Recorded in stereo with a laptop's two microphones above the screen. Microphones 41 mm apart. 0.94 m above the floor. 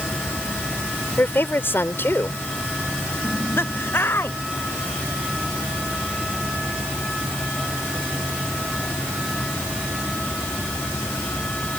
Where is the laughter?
65° left (ahead or behind).